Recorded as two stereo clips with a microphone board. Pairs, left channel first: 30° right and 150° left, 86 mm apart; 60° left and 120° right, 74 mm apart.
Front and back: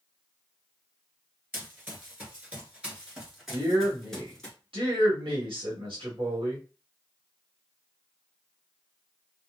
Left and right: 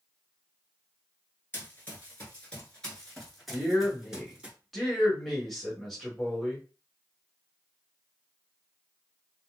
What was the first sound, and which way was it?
Running footsteps, 100° left.